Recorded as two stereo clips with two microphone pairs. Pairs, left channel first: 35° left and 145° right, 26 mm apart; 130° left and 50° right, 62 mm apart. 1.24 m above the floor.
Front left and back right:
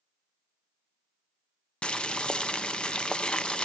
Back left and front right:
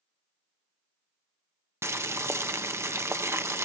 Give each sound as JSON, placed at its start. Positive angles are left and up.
{"t": 1.8, "sound": "boiling", "azimuth_deg": -10, "distance_m": 0.6}